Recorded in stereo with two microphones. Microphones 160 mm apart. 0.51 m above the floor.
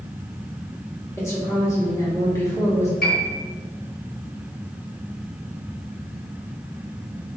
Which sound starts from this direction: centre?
A woman speaking, at 1.2 s.